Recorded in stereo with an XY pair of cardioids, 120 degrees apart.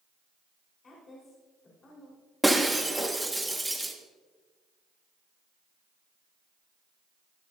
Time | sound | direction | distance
0.8 | a woman speaking | 40° left | 4.5 m
2.4 | breaking glass | 5° right | 1.7 m